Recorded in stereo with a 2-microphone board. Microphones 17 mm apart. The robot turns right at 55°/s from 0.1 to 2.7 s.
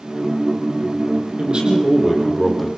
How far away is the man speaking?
About 6.5 m.